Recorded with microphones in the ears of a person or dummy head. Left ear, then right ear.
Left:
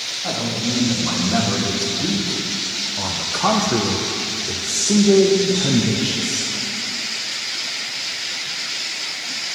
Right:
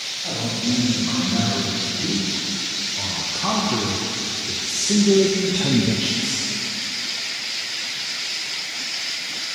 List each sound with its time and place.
0.2 s a man speaking: 85° left, 3 m; by 6.5 s 30° right (ahead or behind), 1.2 m